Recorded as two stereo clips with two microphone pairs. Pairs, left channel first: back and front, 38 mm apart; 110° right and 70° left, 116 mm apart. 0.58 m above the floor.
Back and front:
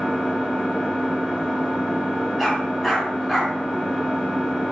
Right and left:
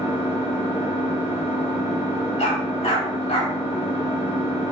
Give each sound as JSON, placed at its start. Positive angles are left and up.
{"t": 0.0, "sound": "an engine running", "azimuth_deg": -115, "distance_m": 1.4}
{"t": 2.4, "sound": "a dog barking", "azimuth_deg": -95, "distance_m": 1.0}